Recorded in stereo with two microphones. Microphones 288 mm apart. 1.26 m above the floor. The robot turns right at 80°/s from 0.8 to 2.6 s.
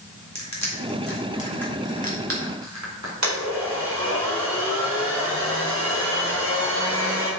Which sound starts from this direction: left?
Crushing, at 0.3 s.